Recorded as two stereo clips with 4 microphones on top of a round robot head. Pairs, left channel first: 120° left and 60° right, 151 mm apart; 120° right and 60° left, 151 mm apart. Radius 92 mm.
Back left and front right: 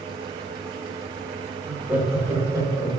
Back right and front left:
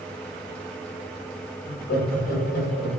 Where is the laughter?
140° right, 2.5 m; by 2.9 s 125° right, 4 m.